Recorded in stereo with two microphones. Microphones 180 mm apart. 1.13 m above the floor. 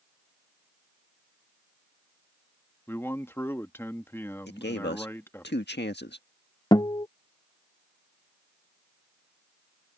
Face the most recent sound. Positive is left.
turn(degrees=25)  # may be behind; listen again after turning